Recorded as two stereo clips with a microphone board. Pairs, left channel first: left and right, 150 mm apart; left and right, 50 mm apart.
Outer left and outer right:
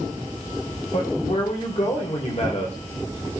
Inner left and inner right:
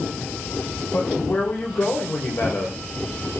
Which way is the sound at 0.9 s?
45° left (ahead or behind).